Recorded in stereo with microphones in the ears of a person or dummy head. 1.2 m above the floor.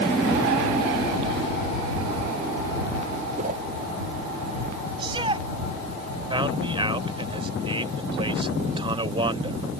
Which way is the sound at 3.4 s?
50° right (ahead or behind).